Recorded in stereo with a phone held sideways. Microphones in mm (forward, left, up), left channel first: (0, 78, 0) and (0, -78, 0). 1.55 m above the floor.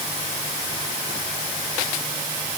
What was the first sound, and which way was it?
Only background noise.